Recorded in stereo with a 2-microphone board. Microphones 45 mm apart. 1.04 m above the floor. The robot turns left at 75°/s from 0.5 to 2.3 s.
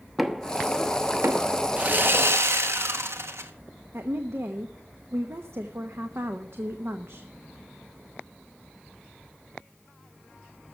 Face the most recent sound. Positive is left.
turn(degrees=-70)  # may be behind; listen again after turning